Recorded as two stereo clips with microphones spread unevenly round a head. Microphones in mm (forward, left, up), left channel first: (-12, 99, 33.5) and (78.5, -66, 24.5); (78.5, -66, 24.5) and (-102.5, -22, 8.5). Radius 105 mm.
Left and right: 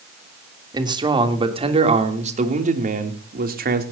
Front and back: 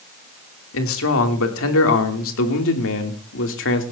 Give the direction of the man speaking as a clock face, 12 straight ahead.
12 o'clock.